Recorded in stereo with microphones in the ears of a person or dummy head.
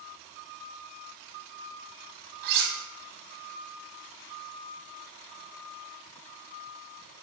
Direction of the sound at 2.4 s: 60° right (ahead or behind).